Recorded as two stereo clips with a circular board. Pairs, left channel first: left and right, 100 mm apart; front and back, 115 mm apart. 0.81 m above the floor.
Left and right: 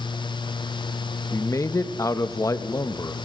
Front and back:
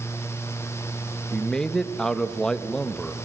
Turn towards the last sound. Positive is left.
turn(degrees=80)